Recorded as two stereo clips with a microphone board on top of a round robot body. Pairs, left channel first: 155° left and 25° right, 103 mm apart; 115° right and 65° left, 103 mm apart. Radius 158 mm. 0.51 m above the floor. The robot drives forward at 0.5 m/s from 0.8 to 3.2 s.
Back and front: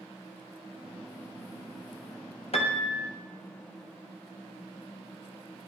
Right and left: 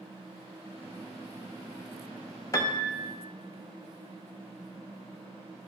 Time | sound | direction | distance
2.5 | a piano | 175° right | 1.5 m